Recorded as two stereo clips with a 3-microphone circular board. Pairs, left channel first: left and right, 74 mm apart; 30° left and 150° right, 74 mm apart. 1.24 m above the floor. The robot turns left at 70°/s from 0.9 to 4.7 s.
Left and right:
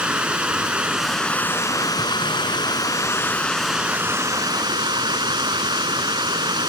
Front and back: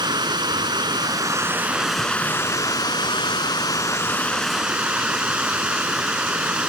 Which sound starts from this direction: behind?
Running water, at 0.0 s.